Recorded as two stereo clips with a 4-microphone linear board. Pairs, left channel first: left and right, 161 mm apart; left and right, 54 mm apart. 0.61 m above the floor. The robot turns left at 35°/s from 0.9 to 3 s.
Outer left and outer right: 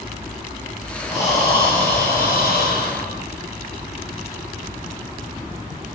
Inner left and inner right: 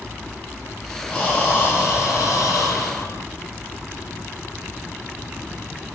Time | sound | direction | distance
1.1 | breathing | 165° left | 6 m